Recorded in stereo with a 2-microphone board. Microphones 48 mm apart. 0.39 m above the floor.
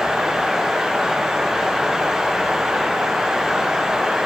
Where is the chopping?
No chopping in this recording.